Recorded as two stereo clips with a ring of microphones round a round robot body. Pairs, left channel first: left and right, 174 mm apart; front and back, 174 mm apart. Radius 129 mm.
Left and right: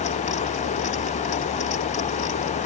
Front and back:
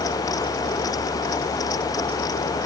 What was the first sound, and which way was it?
Only background noise.